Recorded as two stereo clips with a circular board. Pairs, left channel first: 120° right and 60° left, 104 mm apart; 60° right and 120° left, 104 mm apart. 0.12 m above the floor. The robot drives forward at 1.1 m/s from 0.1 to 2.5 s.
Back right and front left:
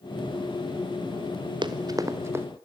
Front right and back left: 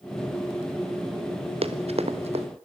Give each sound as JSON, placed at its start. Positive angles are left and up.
{"t": 1.6, "sound": "running footsteps", "azimuth_deg": 100, "distance_m": 1.6}